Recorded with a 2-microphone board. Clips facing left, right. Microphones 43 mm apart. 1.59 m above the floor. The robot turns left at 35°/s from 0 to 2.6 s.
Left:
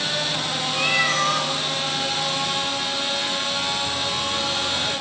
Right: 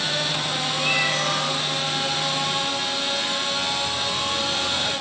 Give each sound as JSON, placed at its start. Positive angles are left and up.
{"t": 0.7, "sound": "a cat meowing", "side_deg": 75, "distance_m": 4.5}